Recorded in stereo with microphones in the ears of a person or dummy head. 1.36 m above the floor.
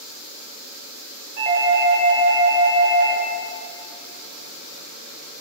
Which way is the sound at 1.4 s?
45° right (ahead or behind).